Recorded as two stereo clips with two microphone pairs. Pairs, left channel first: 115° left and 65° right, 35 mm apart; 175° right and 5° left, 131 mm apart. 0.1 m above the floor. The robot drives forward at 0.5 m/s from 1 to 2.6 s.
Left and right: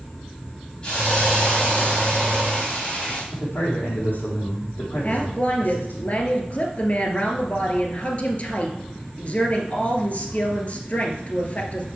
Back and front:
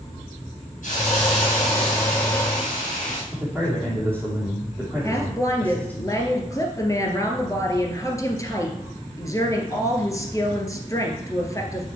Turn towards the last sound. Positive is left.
turn(degrees=135)